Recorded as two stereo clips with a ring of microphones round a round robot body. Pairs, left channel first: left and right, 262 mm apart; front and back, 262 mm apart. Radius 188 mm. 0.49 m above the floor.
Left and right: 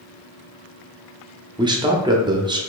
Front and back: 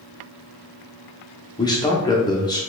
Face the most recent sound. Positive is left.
turn(degrees=-45)